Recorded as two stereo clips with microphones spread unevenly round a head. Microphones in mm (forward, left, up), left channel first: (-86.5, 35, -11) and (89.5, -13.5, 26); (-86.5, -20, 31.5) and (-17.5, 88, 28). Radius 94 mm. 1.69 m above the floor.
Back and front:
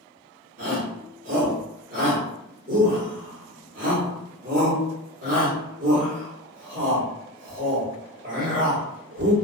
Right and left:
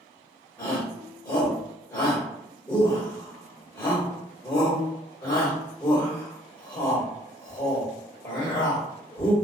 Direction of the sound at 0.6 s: 50° right.